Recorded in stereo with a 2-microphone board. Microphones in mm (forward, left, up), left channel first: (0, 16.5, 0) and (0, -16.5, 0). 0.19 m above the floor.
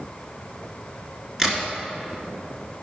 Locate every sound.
1.4 s a crack: 15° right (ahead or behind), 2.0 m